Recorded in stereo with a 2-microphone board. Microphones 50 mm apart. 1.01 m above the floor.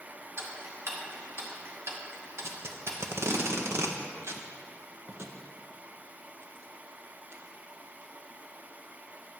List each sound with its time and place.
0.4 s ticking: 55° right (ahead or behind), 1.0 m
2.4 s tape being pulled: 60° right (ahead or behind), 0.6 m